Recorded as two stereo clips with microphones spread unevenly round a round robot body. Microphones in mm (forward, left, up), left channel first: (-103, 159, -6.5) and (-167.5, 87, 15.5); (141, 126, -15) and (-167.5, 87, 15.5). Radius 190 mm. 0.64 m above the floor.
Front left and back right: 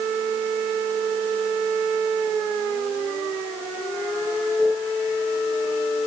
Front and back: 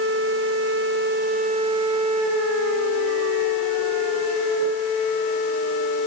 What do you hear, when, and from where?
Only background noise.